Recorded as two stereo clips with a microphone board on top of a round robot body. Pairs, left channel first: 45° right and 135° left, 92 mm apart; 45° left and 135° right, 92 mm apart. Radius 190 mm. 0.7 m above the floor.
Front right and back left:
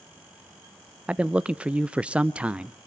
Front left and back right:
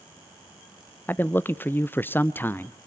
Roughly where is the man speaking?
Left.